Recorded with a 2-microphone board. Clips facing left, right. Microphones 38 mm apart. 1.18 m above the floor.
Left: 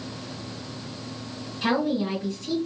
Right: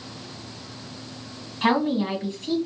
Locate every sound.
1.6 s a woman speaking: 35° right (ahead or behind), 1.6 m